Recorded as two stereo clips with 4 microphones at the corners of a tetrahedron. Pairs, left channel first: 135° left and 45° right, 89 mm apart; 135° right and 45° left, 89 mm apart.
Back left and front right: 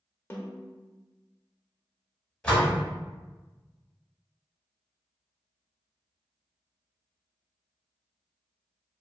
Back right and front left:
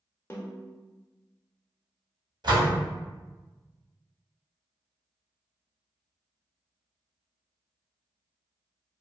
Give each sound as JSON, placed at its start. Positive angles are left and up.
{"t": 0.3, "sound": "a snare drum", "azimuth_deg": 180, "distance_m": 0.6}
{"t": 2.4, "sound": "a door slam", "azimuth_deg": 55, "distance_m": 0.9}